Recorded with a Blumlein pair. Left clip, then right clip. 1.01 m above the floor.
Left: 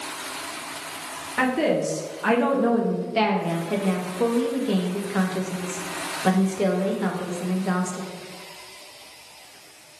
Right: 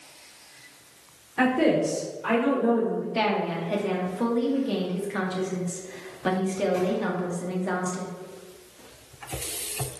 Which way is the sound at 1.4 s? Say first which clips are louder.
Even; 35° left.